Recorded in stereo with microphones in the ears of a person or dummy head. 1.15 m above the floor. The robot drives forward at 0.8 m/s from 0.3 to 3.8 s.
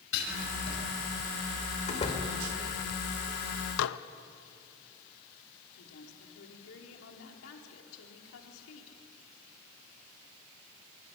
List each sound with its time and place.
0.1 s writing: 70° left (ahead or behind), 5.5 m
1.9 s a door slam: 35° left (ahead or behind), 2.5 m; by 2.2 s 30° left (ahead or behind), 2.5 m
3.8 s dishes clattering: 80° left, 0.8 m
5.8 s a woman speaking: 80° left, 3.5 m